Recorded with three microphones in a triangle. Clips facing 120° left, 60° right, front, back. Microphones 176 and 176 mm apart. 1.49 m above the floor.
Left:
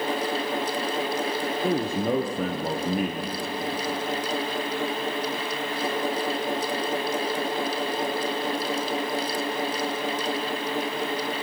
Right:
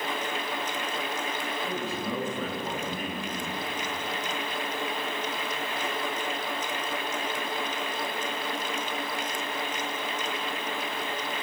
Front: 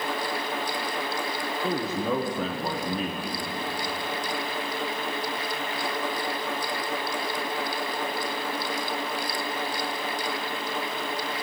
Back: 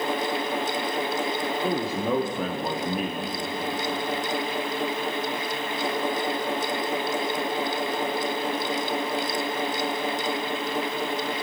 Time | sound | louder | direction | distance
1.6 | a man speaking | left 10 dB, even | 100° left | 0.8 m